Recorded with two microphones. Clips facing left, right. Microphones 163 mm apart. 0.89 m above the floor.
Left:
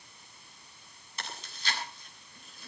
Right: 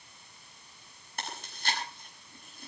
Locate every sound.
1.2 s chewing: 55° right (ahead or behind), 7 m